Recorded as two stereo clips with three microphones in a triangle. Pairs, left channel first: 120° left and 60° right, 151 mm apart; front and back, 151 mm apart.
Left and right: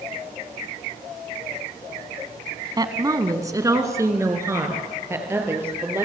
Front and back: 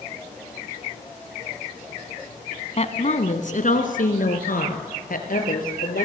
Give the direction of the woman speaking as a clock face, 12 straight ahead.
12 o'clock.